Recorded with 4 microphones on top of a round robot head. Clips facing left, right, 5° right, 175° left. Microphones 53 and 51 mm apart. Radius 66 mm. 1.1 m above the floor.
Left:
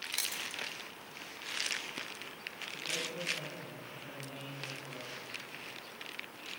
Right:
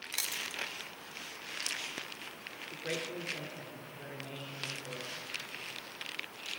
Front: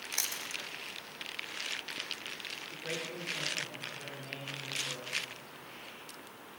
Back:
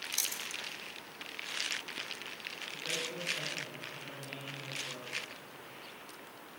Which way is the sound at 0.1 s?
Straight ahead.